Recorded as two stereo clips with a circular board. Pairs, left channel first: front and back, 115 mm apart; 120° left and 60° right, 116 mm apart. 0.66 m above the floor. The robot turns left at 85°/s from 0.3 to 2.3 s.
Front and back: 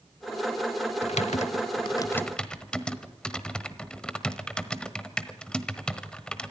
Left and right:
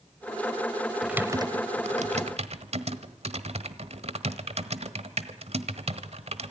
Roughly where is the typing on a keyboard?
Ahead left.